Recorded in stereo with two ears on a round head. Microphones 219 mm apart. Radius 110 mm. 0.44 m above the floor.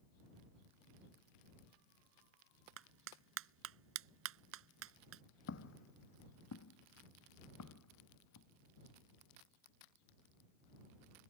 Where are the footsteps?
50° left (ahead or behind); by 8.5 s 80° left.